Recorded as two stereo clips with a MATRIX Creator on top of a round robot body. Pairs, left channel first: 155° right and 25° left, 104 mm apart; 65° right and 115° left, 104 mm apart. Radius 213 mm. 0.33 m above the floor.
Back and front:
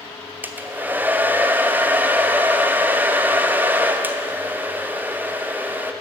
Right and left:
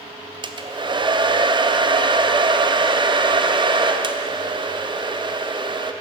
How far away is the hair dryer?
About 1.0 m.